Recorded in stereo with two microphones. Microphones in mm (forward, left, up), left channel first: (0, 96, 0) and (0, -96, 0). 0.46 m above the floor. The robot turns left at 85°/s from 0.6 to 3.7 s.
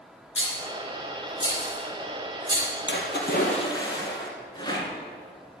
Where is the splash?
90° left, 2 m; by 4.3 s 20° left, 2 m.